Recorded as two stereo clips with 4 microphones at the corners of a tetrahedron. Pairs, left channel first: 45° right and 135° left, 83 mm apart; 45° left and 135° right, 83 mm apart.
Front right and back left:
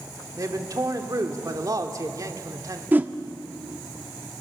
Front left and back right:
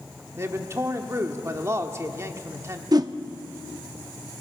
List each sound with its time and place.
0.4 s a man speaking: 170° left, 1.6 m
2.9 s a whoosh: 160° right, 0.8 m